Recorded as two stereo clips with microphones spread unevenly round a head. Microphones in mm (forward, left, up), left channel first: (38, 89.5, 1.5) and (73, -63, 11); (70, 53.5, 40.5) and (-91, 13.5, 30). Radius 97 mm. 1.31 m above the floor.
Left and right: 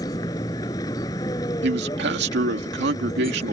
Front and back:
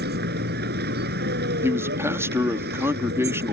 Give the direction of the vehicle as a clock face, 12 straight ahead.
6 o'clock.